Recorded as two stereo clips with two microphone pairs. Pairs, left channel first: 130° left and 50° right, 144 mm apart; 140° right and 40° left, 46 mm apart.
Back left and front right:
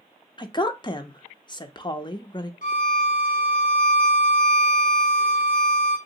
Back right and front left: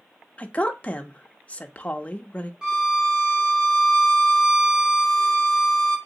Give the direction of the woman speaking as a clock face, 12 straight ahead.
6 o'clock.